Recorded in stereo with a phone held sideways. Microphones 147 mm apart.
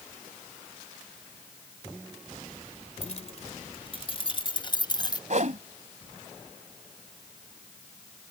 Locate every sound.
3.0 s keys jangling: 50° left (ahead or behind); by 5.2 s 30° left (ahead or behind)
5.3 s a whoosh: 55° right (ahead or behind)